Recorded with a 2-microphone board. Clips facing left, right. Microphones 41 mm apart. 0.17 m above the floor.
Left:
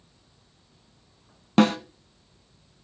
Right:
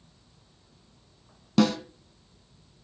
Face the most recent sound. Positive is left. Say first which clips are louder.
# left 3 dB
turn(degrees=40)  # may be behind; listen again after turning